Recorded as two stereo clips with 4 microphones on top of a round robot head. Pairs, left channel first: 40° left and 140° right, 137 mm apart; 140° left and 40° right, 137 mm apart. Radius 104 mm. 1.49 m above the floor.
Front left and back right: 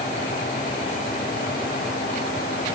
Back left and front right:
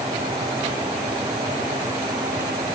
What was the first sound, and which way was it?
Only background noise.